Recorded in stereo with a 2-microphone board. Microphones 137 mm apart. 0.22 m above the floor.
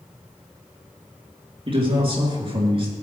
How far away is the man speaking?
About 3.5 m.